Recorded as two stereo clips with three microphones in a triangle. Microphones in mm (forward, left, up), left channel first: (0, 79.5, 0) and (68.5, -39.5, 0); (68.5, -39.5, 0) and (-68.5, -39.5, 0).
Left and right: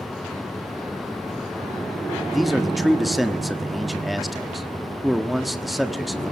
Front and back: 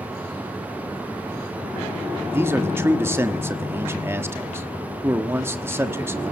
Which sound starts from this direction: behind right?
A man speaking, at 2.3 s.